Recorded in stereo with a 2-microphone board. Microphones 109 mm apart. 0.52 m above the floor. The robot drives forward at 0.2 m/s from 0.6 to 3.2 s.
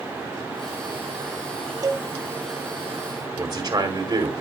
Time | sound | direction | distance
1.8 | a cowbell | 35° right (ahead or behind) | 0.8 m
3.4 | a man speaking | 35° right (ahead or behind) | 1.7 m